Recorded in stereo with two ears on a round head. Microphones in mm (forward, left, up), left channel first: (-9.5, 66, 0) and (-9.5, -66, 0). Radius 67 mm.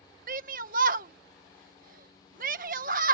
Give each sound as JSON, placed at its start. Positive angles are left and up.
{"t": 0.3, "sound": "a shout", "side_deg": -60}